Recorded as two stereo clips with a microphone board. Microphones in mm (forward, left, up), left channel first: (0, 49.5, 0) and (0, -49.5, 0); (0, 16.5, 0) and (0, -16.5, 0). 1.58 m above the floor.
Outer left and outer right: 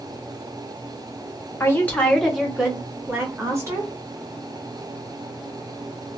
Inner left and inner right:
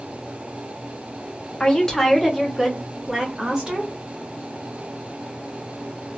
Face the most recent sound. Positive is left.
turn(degrees=-30)  # may be behind; listen again after turning